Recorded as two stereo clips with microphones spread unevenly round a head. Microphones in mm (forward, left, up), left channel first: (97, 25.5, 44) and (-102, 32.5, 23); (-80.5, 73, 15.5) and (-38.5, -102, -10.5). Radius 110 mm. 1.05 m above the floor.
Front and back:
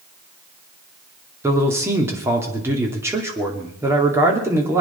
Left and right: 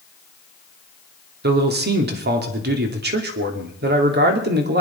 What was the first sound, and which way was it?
A man speaking, 105° right.